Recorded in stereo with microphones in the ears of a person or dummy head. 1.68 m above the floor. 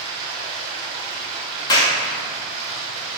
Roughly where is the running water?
Right.